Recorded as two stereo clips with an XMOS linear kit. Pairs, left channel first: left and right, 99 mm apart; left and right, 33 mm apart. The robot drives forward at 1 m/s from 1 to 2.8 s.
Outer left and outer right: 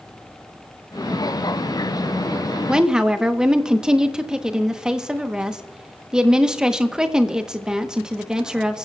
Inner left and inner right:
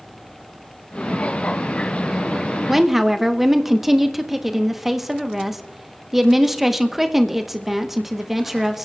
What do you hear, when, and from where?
2.7 s a woman speaking: 10° right (ahead or behind), 0.8 m; by 8.8 s 5° right (ahead or behind), 0.9 m